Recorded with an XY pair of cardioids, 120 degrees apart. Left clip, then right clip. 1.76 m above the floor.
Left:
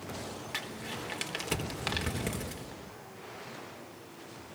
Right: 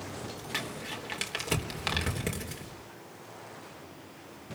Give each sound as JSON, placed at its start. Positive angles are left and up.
{"t": 0.5, "sound": "crumpling", "azimuth_deg": -10, "distance_m": 4.0}